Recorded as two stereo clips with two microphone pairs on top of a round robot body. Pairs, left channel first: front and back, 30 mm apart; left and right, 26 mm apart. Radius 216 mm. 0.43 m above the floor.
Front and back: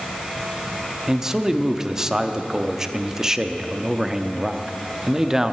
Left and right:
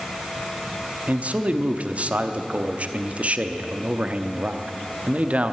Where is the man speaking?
110° right, 1.0 m.